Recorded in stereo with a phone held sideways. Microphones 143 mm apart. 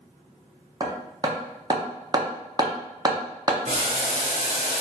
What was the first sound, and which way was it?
Hammering, 25° right (ahead or behind).